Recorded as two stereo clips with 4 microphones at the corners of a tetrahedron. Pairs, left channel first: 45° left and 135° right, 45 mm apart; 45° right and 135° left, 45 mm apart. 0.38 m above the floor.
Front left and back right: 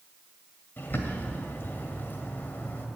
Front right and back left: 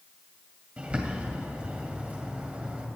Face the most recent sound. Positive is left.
turn(degrees=80)